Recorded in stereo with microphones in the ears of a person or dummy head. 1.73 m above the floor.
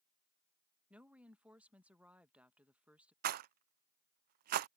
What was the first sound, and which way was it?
A woman speaking, 15° right (ahead or behind).